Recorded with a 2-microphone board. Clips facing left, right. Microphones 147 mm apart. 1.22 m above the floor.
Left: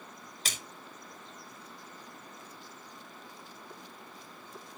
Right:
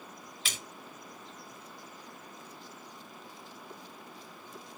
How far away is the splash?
About 2.5 m.